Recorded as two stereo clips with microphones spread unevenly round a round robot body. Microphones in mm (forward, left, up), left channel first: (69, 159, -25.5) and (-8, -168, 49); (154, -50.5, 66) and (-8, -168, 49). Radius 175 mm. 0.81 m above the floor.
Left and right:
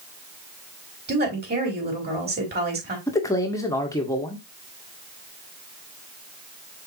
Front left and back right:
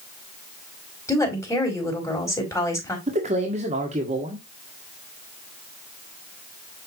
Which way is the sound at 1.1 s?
40° right.